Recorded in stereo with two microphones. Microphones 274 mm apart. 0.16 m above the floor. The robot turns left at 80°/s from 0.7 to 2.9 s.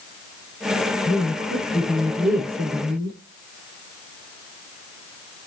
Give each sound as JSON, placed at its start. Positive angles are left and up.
{"t": 1.1, "sound": "a woman speaking", "azimuth_deg": 70, "distance_m": 6.5}